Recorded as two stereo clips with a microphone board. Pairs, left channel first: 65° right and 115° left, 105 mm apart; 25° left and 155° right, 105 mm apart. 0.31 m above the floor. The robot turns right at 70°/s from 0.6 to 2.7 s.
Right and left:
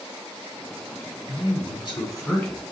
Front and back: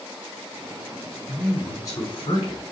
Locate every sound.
1.3 s a man speaking: 70° right, 2 m; by 2.7 s 30° left, 2 m